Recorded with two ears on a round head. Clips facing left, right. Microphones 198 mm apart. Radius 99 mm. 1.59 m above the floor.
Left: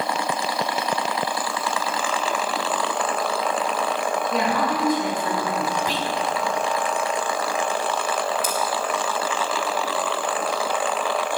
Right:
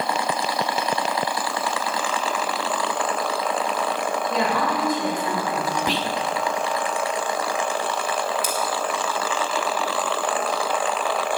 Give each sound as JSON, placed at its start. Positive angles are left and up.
{"t": 4.3, "sound": "a woman speaking", "side_deg": -65, "distance_m": 7.5}
{"t": 5.9, "sound": "whispering", "side_deg": -55, "distance_m": 1.0}
{"t": 8.4, "sound": "scissors", "side_deg": -60, "distance_m": 4.0}